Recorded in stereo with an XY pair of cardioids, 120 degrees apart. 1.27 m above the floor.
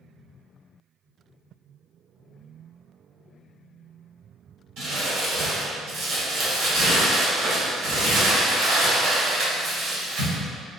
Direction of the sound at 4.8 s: 70° right.